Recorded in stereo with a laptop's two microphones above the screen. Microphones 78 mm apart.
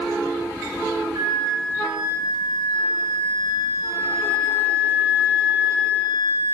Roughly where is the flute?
Right.